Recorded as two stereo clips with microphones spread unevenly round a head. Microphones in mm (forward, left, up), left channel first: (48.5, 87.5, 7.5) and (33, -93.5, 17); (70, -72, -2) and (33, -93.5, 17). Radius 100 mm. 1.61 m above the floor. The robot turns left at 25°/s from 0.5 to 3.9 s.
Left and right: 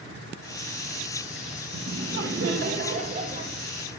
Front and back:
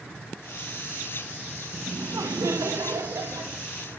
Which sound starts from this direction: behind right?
Laughter, at 1.7 s.